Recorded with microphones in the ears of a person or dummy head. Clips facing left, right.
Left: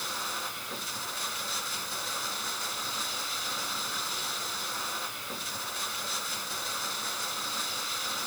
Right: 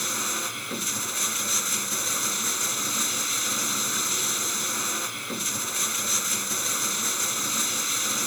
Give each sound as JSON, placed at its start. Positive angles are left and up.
{"t": 0.0, "sound": "running water", "side_deg": -45}